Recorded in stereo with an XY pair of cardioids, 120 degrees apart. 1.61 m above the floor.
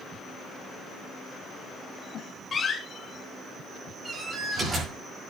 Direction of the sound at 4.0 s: 30° right.